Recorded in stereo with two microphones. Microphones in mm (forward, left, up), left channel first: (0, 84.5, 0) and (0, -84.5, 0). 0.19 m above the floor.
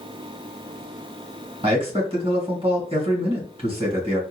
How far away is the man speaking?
About 1.6 m.